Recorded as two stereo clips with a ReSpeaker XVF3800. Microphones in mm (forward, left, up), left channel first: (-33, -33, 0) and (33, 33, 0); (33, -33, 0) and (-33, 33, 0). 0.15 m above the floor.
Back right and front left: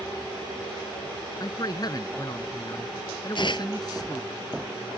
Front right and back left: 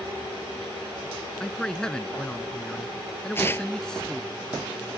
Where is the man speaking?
125° right.